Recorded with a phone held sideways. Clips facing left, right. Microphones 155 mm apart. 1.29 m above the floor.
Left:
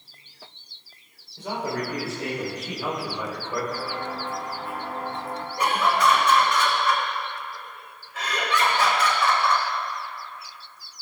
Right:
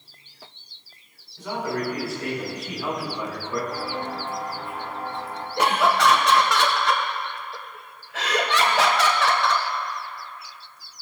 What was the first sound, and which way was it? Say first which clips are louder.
A man speaking: right 1 dB; 30° left (ahead or behind).